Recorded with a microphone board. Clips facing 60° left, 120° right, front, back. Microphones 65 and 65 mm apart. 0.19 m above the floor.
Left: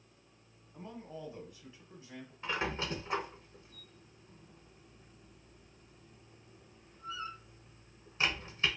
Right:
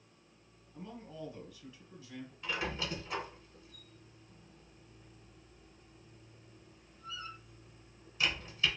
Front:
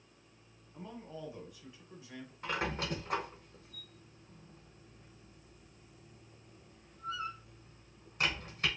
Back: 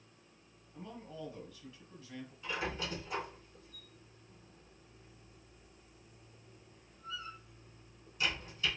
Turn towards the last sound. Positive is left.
turn(degrees=15)